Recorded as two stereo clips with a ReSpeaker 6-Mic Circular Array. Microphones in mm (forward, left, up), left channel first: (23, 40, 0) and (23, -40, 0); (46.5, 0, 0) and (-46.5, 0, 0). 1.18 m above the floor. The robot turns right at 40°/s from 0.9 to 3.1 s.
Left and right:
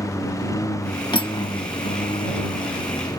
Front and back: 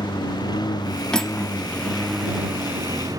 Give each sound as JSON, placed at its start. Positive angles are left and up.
{"t": 0.0, "sound": "a lawn mower", "azimuth_deg": 40}
{"t": 1.1, "sound": "cutlery clinking", "azimuth_deg": 80}